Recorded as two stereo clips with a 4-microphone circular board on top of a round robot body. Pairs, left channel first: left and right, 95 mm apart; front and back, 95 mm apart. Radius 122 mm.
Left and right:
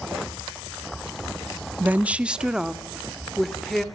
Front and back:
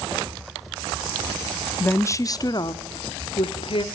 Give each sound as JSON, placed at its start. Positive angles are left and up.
{"t": 1.8, "sound": "a woman speaking", "azimuth_deg": -40, "distance_m": 0.8}